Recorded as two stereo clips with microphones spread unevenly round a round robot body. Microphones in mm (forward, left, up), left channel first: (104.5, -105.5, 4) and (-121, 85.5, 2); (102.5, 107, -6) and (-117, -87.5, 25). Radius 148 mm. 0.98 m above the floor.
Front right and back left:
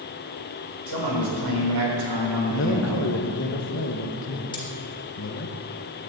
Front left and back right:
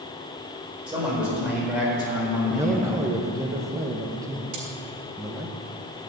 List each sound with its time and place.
0.9 s a man speaking: 135° left, 4.5 m; by 3.5 s 130° left, 3 m
2.5 s a man speaking: 60° right, 1.0 m
4.5 s cutlery clinking: 115° right, 3.5 m